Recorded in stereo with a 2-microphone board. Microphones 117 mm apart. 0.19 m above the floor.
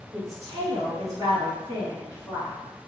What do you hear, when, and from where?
0.1 s a woman speaking: 30° right (ahead or behind), 2.0 m; by 2.6 s 35° right (ahead or behind), 1.3 m